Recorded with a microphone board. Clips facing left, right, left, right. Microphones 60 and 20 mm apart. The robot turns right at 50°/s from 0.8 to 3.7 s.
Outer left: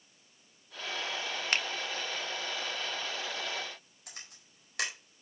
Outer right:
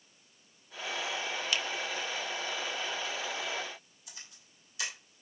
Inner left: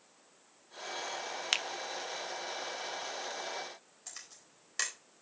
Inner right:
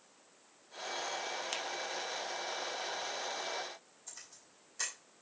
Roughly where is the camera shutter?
Left.